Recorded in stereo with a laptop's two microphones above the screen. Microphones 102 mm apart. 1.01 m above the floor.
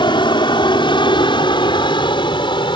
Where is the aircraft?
50° left (ahead or behind).